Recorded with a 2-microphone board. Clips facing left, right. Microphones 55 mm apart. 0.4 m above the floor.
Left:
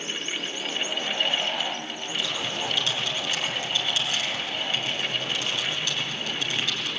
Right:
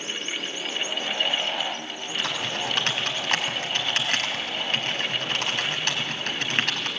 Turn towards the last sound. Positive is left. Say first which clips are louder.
# right 2 dB
turn(degrees=-60)  # may be behind; listen again after turning